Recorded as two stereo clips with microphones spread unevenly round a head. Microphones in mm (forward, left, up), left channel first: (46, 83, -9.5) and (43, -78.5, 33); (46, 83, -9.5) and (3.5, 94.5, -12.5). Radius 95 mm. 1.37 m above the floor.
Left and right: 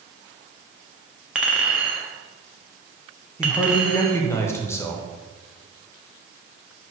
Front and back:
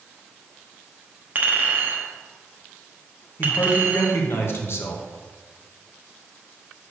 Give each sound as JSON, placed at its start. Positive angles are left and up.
{"t": 1.4, "sound": "a clink", "azimuth_deg": -155, "distance_m": 0.9}
{"t": 3.4, "sound": "a man speaking", "azimuth_deg": 15, "distance_m": 1.6}